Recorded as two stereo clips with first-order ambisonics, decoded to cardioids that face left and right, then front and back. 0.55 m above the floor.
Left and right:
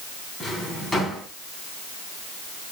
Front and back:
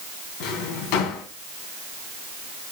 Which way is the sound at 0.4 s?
10° left.